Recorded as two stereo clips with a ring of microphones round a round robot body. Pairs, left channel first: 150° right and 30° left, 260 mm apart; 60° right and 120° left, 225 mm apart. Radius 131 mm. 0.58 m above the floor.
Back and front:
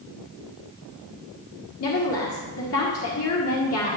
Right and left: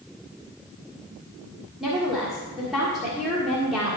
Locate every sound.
1.8 s a woman speaking: 150° right, 1.6 m